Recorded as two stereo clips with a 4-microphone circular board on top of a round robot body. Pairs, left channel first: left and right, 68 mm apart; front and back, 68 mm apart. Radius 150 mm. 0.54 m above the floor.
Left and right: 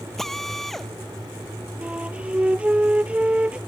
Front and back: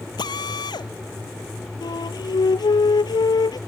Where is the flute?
15° right.